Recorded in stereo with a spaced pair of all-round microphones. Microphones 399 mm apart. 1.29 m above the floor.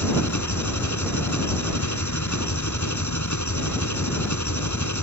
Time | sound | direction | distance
0.0 | an engine running | 45° left (ahead or behind) | ?